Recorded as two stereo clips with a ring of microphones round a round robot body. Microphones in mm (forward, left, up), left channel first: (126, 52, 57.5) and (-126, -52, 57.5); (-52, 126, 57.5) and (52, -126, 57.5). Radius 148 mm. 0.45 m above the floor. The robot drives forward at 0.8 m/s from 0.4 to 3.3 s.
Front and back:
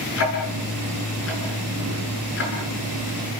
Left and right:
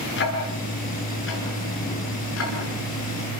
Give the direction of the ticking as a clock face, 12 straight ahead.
10 o'clock.